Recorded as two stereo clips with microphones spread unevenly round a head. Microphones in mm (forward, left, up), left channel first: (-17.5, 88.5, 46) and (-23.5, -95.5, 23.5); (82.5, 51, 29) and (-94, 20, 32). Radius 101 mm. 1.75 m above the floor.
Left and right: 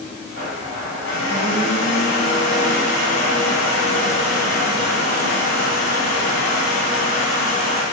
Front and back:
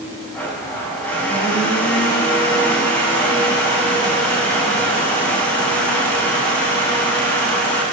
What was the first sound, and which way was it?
A blender, 90° left.